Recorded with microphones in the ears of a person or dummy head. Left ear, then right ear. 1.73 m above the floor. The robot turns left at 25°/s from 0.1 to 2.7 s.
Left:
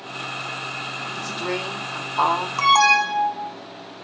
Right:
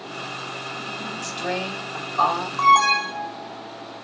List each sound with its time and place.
1.2 s a woman speaking: 175° left, 3.5 m; by 2.5 s 145° left, 3.5 m
2.6 s an alarm: 60° left (ahead or behind), 2 m